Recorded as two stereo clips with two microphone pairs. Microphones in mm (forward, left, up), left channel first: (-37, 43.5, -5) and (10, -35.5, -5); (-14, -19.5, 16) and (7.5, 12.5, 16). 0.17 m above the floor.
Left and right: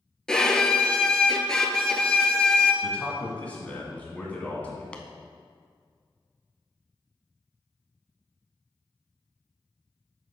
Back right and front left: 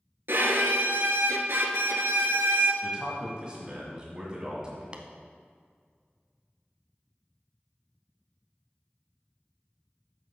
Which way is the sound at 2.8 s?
75° left.